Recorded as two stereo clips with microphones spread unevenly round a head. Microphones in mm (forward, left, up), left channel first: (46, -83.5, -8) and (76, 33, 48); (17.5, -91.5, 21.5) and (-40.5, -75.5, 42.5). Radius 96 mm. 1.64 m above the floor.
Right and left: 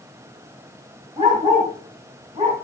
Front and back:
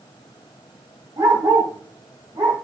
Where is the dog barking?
130° left, 4.5 m.